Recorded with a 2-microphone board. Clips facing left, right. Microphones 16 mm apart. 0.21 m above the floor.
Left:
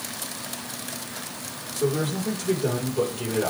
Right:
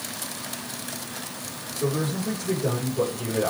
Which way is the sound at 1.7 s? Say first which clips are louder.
Left 1 dB; 60° left (ahead or behind).